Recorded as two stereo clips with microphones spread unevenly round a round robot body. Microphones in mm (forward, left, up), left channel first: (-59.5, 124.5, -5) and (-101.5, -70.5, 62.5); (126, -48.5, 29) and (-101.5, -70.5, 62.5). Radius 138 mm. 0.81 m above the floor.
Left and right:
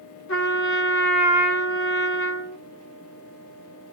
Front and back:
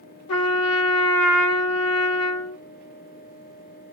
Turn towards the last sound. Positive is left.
turn(degrees=25)